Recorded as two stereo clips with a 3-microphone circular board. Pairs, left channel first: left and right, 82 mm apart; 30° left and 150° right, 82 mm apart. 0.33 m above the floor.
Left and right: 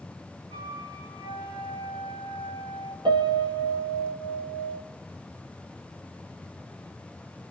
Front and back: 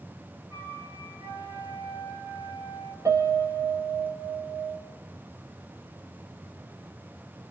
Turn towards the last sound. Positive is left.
turn(degrees=-100)